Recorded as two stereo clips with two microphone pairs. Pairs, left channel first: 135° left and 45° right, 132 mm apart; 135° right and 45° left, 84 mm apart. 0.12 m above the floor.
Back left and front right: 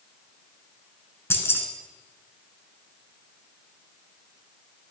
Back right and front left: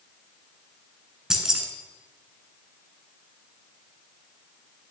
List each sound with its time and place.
1.3 s keys jangling: 115° left, 0.9 m